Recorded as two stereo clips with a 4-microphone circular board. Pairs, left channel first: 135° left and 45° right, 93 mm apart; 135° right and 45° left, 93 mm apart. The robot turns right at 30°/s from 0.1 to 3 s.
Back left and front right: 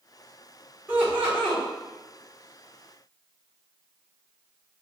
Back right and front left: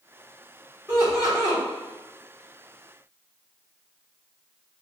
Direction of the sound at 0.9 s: 5° left.